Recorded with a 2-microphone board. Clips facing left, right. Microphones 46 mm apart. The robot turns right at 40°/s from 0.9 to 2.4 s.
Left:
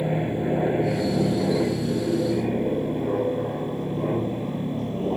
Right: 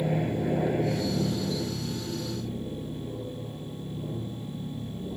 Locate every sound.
0.0 s an aircraft: 15° left (ahead or behind); by 5.2 s 65° left (ahead or behind)